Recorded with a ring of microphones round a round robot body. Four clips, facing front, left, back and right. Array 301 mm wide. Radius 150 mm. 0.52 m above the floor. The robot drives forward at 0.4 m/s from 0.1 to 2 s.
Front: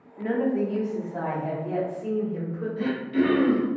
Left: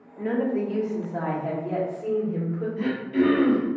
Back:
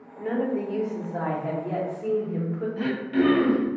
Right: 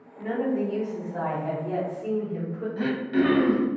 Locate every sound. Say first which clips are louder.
0.2 s a woman speaking: left 1 dB, front 2 dB; 40° left, 0.8 m; by 2.7 s 155° left, 0.9 m
2.8 s throat clearing: even, even; 125° right, 0.7 m